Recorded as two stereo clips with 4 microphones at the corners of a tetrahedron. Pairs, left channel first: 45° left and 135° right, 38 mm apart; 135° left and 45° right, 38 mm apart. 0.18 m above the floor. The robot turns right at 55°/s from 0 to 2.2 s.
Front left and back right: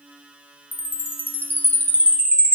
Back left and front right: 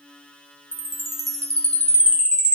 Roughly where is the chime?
Ahead.